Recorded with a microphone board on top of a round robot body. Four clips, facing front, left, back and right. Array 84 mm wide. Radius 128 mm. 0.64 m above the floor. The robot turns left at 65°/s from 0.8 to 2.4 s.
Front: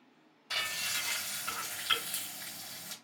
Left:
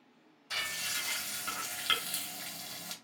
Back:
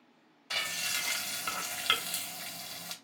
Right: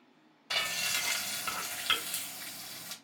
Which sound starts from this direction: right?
Frying, at 0.5 s.